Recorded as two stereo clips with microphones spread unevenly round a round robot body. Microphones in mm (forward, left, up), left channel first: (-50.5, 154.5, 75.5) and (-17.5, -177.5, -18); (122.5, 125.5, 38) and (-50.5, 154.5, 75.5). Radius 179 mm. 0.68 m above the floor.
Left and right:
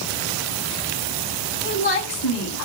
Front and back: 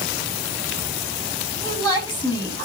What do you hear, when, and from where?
1.6 s a woman speaking: 55° left, 5 m